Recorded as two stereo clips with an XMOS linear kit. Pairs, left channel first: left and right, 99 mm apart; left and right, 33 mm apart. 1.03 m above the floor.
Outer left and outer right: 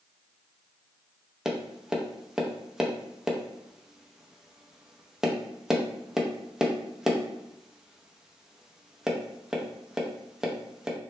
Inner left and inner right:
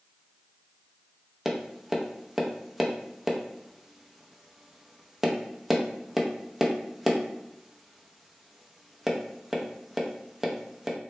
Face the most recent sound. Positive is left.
turn(degrees=-5)  # may be behind; listen again after turning